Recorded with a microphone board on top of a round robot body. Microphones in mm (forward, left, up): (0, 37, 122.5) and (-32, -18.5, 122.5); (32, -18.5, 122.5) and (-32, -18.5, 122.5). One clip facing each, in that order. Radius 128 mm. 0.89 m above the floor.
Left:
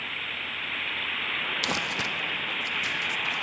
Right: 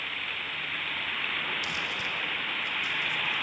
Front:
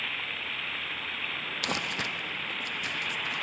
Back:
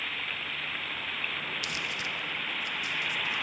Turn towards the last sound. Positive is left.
turn(degrees=35)